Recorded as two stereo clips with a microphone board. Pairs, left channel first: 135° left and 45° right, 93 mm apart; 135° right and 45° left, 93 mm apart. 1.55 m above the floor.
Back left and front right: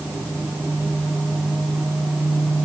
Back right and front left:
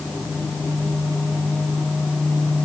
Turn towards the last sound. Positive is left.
No sound to turn to.